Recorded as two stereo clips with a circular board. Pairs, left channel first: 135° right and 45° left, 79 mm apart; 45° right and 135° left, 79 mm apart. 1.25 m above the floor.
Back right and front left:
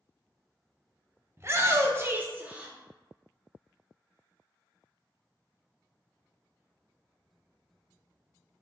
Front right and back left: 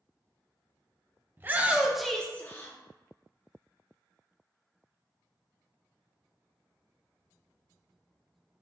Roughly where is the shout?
Left.